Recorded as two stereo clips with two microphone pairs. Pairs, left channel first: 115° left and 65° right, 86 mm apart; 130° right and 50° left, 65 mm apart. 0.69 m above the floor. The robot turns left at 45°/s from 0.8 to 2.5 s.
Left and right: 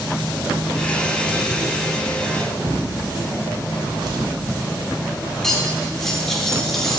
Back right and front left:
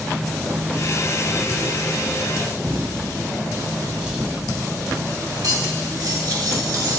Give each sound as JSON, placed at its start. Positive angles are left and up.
{"t": 2.6, "sound": "a drawer", "azimuth_deg": -25, "distance_m": 1.5}
{"t": 5.4, "sound": "cutlery clinking", "azimuth_deg": 30, "distance_m": 1.0}